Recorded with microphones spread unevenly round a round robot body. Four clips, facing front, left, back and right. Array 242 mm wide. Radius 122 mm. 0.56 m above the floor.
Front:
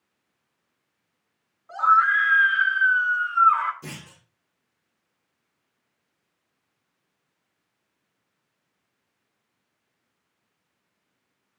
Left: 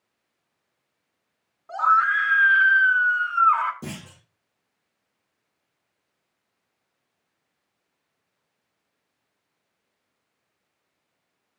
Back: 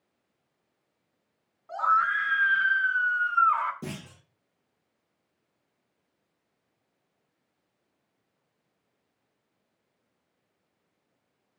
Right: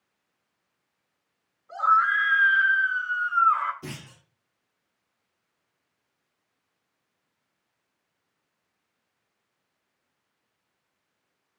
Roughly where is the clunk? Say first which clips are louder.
Left 3 dB, back 2 dB; behind left.